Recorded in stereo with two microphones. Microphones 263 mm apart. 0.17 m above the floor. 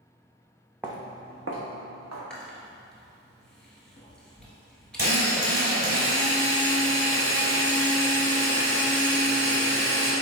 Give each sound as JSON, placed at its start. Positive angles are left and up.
{"t": 0.8, "sound": "footsteps", "side_deg": -5, "distance_m": 0.7}
{"t": 2.3, "sound": "chewing", "side_deg": 0, "distance_m": 1.1}
{"t": 5.0, "sound": "a drill", "side_deg": -35, "distance_m": 1.8}